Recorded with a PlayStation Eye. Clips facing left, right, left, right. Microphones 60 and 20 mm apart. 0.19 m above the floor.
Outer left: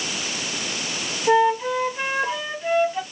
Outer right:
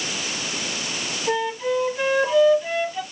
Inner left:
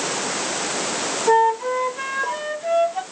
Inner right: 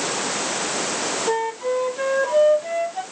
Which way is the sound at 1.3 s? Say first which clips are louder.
Outer left 6 dB, inner left 9 dB; 15° left (ahead or behind).